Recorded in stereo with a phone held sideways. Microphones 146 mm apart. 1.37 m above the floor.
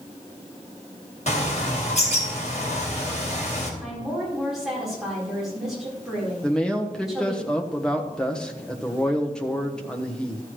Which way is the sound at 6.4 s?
5° left (ahead or behind).